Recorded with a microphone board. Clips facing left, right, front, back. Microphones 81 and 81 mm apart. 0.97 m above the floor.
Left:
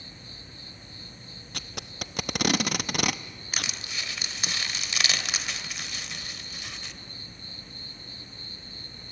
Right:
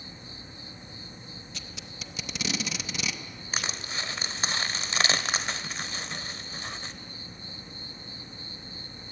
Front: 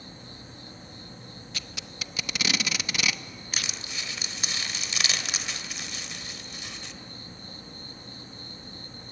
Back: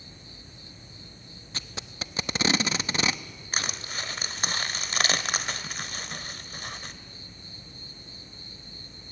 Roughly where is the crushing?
Behind right.